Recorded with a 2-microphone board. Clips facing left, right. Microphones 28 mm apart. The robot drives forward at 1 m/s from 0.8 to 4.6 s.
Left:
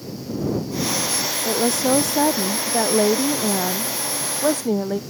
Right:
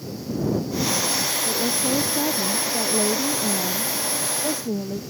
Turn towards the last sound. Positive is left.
turn(degrees=80)